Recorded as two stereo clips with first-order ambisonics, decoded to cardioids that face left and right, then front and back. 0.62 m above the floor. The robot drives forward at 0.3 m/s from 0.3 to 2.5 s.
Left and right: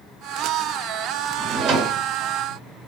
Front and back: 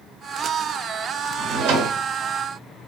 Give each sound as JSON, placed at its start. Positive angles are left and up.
{"t": 1.4, "sound": "a drawer", "azimuth_deg": -140, "distance_m": 0.7}